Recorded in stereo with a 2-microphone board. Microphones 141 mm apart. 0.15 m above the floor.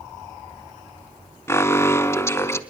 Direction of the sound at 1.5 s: 20° left (ahead or behind).